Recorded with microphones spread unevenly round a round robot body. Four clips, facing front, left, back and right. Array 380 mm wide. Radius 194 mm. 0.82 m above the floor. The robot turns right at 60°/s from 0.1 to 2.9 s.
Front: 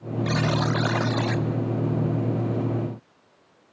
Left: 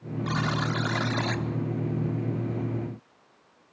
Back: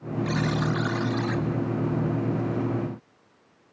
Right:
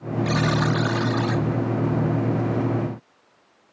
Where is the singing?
I don't hear singing.